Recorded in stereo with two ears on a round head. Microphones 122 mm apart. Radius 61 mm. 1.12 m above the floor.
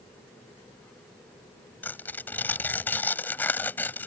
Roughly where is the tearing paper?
Centre.